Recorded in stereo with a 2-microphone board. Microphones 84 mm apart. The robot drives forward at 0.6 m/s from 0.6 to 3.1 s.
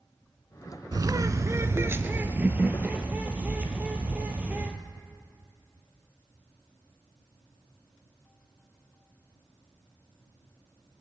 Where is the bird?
55° right (ahead or behind), 0.7 m; by 4.8 s 20° right (ahead or behind), 1.7 m.